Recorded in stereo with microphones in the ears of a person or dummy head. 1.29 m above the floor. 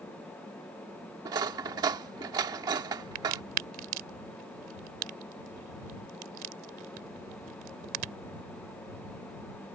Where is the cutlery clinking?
20° right (ahead or behind).